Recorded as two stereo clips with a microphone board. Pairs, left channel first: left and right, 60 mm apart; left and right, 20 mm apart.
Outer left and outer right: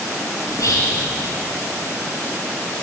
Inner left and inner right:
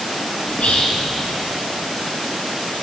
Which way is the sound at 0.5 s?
70° left (ahead or behind).